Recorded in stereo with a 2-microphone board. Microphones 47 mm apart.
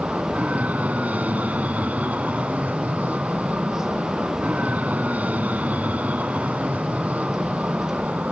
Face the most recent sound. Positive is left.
turn(degrees=-35)  # may be behind; listen again after turning